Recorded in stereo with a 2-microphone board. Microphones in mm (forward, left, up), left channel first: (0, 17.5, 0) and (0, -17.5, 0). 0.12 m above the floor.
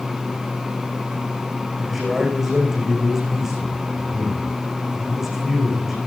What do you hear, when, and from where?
1.8 s a man speaking: 10° right (ahead or behind), 6 m